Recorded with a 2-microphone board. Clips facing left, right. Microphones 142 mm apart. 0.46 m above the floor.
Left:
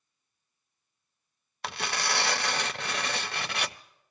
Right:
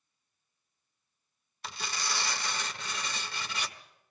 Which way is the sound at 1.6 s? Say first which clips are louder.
Left 6 dB; 65° left (ahead or behind).